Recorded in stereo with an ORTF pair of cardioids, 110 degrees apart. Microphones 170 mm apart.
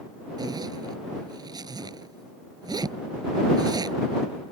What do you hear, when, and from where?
0.4 s a zipper: 25° right